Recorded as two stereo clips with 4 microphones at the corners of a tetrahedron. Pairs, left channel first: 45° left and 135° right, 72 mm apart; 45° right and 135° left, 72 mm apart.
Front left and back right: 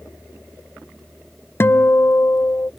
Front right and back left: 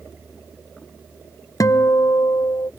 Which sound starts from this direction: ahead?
A guitar, at 1.6 s.